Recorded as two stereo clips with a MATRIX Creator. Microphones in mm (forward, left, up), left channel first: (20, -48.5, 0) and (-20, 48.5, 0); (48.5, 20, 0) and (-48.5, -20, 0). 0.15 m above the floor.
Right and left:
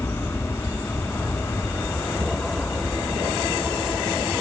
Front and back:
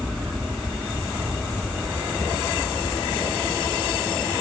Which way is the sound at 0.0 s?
60° right.